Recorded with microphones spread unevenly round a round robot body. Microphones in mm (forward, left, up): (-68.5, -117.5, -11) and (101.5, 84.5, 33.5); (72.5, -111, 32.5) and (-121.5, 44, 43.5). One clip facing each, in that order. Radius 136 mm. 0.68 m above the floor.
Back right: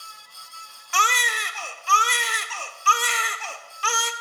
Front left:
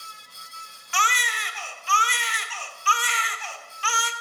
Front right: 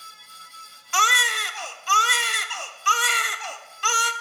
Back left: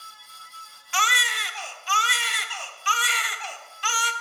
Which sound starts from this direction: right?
A baby crying, at 0.9 s.